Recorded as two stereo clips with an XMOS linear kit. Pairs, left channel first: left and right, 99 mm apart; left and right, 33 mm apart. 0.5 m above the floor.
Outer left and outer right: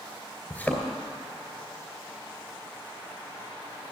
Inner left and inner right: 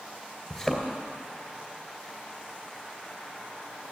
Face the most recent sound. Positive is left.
turn(degrees=15)  # may be behind; listen again after turning